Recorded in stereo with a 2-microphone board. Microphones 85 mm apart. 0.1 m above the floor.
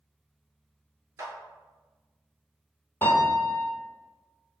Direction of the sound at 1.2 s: 40° right (ahead or behind).